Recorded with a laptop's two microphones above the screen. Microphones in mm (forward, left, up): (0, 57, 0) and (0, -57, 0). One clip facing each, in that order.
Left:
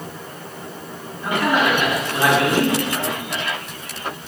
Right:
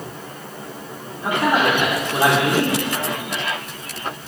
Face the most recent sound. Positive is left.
turn(degrees=-25)  # may be behind; listen again after turning